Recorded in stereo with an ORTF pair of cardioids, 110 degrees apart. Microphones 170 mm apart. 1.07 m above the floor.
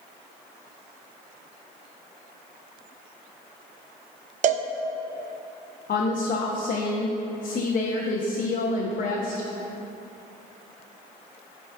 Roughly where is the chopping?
No chopping in this recording.